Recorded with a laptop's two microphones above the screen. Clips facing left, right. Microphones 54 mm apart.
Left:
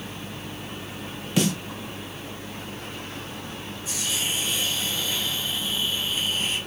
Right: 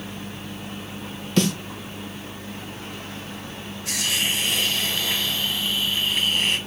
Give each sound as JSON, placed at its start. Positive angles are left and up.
{"t": 1.4, "sound": "a snare drum", "side_deg": 10, "distance_m": 1.5}
{"t": 3.9, "sound": "a hiss", "side_deg": -70, "distance_m": 1.4}